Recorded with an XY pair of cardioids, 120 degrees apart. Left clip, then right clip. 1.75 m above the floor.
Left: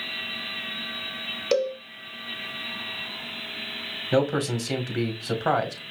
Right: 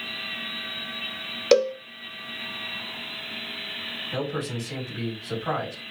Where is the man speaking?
70° left, 2.5 m.